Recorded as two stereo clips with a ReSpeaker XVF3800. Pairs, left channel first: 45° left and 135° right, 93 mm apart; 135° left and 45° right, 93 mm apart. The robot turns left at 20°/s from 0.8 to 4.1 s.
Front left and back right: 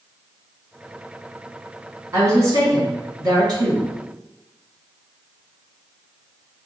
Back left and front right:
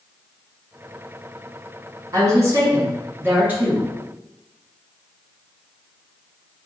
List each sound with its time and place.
2.1 s a woman speaking: 85° right, 1.6 m; by 3.9 s 120° right, 1.6 m